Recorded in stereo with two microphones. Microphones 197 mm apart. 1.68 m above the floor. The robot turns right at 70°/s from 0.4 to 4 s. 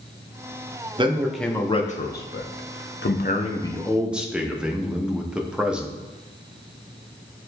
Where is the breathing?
I don't hear breathing.